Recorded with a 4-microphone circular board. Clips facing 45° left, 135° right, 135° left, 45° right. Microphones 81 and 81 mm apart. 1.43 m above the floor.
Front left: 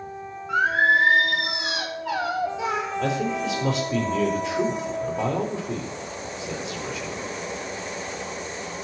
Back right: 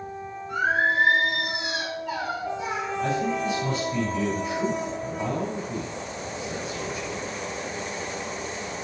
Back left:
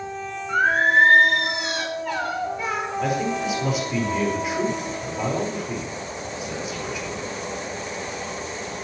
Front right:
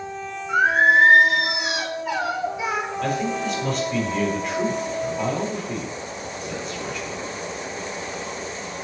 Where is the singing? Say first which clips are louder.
Front left 3 dB, front right 2 dB; 40° left, 3 m.